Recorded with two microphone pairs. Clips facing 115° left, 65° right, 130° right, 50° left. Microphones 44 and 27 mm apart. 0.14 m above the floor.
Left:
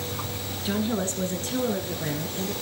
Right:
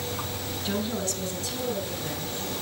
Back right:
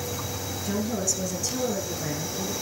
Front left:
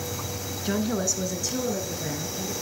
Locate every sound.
0.7 s a woman speaking: 40° left, 1.3 m; by 2.5 s 145° left, 3 m